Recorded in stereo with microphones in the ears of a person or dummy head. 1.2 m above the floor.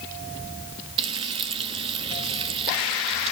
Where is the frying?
30° right (ahead or behind), 0.9 m.